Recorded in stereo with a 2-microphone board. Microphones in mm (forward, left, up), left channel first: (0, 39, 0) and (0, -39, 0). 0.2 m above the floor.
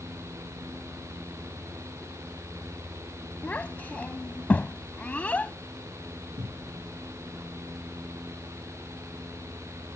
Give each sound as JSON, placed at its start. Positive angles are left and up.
{"t": 3.4, "sound": "a child speaking", "side_deg": 20}
{"t": 6.4, "sound": "a cupboard door", "side_deg": -80}